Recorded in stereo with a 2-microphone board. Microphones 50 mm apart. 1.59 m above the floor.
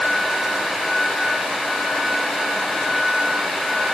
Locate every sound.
Only background noise.